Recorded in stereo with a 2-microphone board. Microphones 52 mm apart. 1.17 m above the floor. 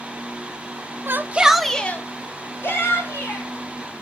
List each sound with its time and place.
1.1 s a shout: 45° right (ahead or behind), 1.0 m; by 3.5 s 60° left (ahead or behind), 3 m